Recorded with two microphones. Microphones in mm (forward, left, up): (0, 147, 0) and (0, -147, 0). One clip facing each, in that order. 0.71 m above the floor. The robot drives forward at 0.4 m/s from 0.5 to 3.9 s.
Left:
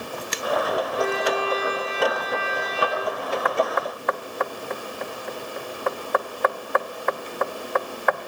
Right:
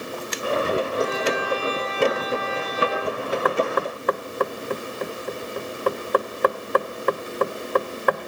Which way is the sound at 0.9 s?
75° left (ahead or behind).